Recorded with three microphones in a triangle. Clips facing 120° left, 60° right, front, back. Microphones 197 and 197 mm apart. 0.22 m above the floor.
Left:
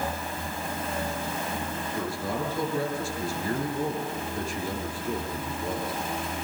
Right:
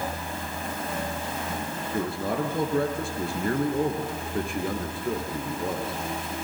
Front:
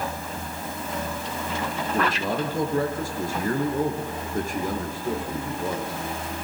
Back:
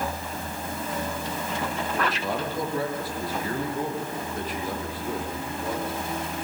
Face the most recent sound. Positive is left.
turn(degrees=-40)